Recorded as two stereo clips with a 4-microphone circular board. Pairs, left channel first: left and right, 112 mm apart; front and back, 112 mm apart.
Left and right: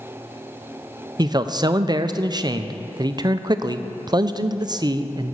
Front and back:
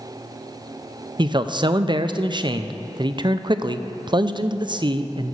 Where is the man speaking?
135° right, 0.5 m.